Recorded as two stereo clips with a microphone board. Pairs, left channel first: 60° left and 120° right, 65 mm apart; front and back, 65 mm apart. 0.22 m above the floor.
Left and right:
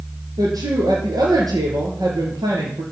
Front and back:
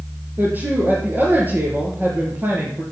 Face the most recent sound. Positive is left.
turn(degrees=-120)